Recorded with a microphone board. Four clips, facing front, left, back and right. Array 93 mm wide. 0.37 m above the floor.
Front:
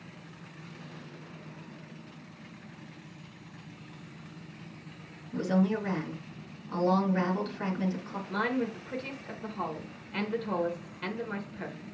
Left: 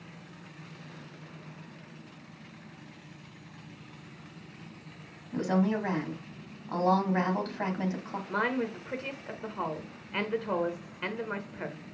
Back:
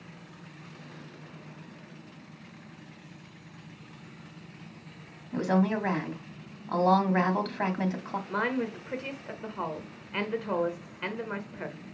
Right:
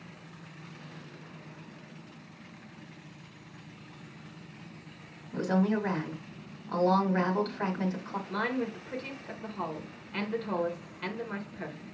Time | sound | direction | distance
5.3 | a woman speaking | 165° left | 2.5 m
8.3 | a woman speaking | 135° left | 1.5 m